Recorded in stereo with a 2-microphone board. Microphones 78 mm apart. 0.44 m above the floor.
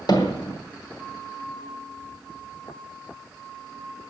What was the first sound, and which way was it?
Hammering, 60° left (ahead or behind).